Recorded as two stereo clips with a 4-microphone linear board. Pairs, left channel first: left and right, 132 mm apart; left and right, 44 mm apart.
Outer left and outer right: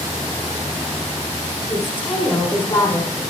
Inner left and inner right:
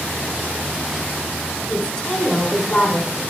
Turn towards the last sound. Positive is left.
turn(degrees=35)  # may be behind; listen again after turning